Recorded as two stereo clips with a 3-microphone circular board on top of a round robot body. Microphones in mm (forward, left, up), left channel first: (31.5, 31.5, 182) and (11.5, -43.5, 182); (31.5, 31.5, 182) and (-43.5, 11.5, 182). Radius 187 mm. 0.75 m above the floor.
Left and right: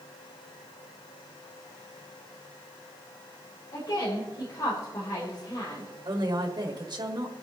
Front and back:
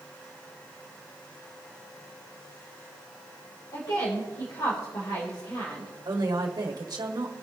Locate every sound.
3.7 s a woman speaking: 40° left, 3.5 m
6.0 s a woman speaking: 125° right, 1.7 m